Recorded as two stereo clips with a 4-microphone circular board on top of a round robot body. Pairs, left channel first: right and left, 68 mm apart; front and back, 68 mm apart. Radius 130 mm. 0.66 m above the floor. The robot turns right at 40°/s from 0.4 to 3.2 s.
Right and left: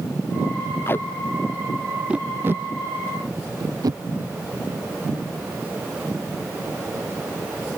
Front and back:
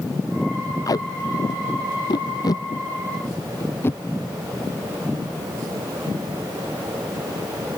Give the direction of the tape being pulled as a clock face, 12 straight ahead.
1 o'clock.